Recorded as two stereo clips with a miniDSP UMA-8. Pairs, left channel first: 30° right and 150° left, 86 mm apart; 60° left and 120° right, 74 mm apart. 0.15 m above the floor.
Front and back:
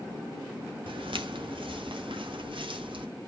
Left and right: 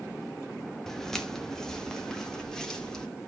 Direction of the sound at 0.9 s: 145° left.